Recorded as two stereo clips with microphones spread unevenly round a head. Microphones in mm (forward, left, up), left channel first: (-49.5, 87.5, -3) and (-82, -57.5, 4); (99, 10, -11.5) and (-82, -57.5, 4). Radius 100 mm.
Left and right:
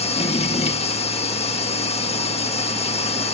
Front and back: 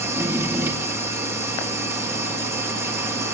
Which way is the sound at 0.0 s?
125° left.